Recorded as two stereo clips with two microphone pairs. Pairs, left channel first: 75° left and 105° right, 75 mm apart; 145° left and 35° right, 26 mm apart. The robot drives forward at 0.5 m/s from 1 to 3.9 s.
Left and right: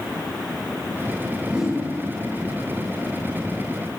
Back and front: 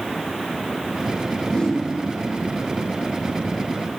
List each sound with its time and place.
1.5 s a whoosh: straight behind, 0.9 m